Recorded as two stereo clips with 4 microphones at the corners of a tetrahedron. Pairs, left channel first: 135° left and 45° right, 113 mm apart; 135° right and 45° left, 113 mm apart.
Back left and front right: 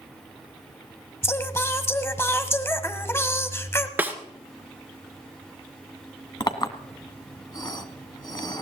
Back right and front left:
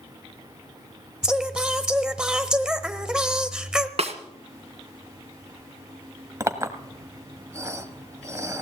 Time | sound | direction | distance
1.2 | singing | 120° left | 1.0 m
4.0 | a snare drum | 25° left | 1.7 m
6.4 | a clink | 100° left | 1.3 m